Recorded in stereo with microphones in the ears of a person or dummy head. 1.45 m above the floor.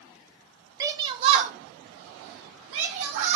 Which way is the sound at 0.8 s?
20° right (ahead or behind).